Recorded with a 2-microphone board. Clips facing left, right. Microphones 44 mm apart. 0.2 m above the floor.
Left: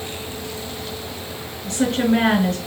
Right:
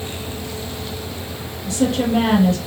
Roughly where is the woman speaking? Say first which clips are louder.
Even; left.